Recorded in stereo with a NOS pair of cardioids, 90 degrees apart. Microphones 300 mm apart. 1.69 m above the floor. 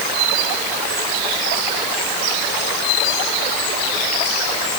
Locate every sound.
Only background noise.